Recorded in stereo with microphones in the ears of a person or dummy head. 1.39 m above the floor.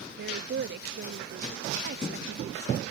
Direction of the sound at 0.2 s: 55° right (ahead or behind).